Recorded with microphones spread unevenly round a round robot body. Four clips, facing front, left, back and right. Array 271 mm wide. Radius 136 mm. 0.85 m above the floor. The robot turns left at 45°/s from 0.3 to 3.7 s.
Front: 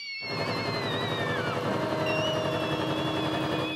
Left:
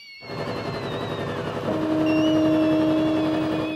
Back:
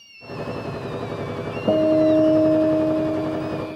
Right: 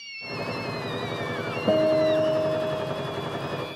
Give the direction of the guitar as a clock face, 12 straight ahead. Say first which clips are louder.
Right 2 dB, back 16 dB; 5 o'clock.